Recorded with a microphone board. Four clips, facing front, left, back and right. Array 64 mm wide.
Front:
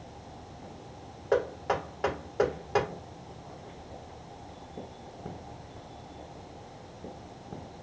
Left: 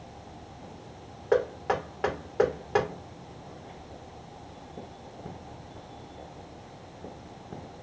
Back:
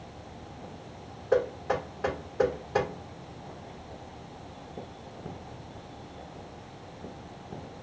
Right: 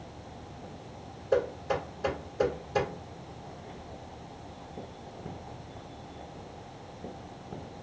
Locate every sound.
1.3 s knocking: 65° left, 2.5 m